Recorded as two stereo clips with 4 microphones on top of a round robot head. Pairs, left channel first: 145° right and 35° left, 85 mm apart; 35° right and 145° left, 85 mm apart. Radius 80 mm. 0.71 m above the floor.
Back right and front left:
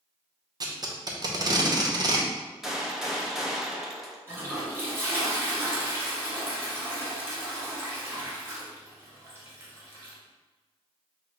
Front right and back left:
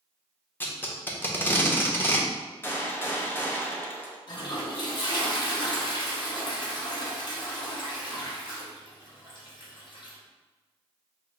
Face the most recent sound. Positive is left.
turn(degrees=-25)